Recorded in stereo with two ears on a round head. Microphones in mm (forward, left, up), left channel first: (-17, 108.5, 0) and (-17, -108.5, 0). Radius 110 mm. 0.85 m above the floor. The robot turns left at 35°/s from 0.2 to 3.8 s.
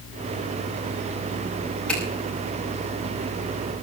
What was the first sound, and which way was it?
A finger snap, 5° left (ahead or behind).